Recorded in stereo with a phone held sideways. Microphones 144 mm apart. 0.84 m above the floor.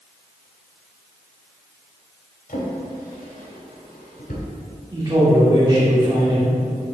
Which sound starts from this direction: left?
A drawer, at 2.5 s.